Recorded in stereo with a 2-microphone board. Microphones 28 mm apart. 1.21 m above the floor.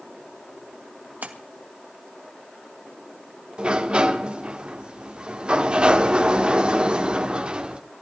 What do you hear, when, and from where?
1.2 s a splash: 75° right (ahead or behind), 1.7 m
3.6 s a sliding door: 40° right (ahead or behind), 1.3 m